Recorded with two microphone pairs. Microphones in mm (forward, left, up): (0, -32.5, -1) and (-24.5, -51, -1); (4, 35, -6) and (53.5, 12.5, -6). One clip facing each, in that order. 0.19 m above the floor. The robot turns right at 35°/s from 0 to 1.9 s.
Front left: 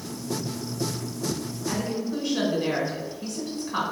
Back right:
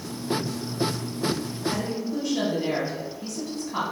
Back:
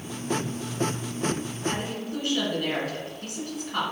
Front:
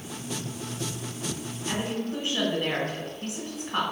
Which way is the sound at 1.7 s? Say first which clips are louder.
Even, front 2 dB; 15° right.